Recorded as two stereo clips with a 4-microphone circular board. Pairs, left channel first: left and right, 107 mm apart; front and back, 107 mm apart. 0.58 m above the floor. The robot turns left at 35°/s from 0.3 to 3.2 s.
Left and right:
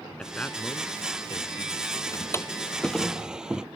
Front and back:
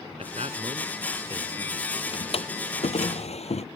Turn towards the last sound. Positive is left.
turn(degrees=-5)